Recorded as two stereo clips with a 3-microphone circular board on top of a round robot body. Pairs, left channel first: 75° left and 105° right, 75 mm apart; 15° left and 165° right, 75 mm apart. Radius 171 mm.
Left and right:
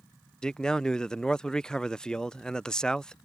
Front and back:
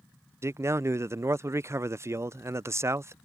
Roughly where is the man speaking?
Behind left.